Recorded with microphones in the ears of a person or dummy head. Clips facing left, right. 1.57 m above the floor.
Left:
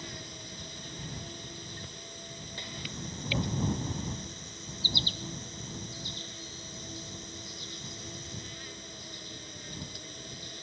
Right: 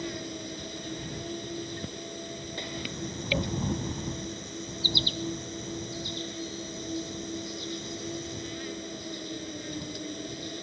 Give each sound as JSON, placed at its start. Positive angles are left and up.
{"t": 0.0, "sound": "an insect", "side_deg": -55}